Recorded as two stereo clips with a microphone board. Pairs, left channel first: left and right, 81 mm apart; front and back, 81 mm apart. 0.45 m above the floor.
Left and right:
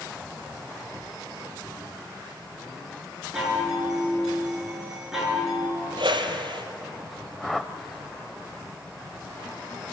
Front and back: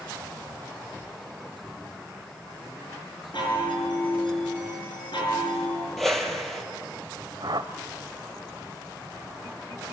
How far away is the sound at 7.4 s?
About 1.0 m.